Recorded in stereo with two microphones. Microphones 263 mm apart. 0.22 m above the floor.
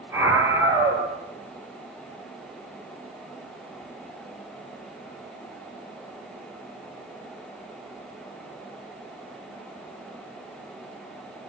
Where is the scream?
10° right (ahead or behind), 4.5 m.